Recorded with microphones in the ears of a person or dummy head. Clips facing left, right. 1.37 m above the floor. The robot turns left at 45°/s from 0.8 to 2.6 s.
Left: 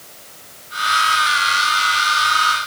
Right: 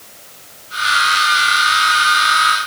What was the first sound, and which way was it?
Only background noise.